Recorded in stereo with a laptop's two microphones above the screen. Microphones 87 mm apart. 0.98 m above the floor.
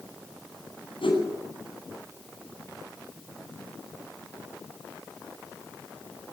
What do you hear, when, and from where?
1.0 s a whoosh: 85° left, 9.5 m